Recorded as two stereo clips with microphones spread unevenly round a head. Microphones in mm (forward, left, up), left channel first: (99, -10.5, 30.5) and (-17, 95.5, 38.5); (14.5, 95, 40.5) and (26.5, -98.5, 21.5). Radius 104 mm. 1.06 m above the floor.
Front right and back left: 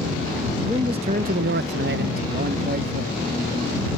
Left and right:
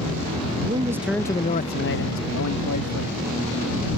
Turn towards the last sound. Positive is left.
turn(degrees=100)